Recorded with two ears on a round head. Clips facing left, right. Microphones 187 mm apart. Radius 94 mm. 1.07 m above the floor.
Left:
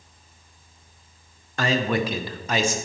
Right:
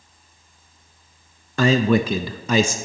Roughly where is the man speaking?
Right.